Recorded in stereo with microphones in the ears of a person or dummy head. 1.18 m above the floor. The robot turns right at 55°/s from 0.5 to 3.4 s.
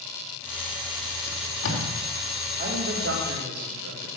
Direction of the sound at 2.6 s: 135° right.